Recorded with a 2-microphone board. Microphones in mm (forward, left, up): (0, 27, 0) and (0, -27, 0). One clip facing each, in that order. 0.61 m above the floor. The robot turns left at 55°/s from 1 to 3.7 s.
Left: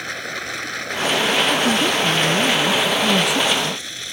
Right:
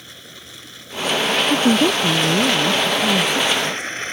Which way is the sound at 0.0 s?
110° left.